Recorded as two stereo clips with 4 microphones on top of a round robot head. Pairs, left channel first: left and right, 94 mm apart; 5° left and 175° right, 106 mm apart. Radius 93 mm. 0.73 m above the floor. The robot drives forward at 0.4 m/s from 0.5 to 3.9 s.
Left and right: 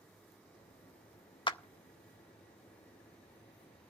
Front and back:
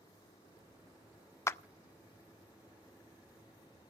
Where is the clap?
65° left, 0.6 m; by 1.6 s 75° left, 0.5 m.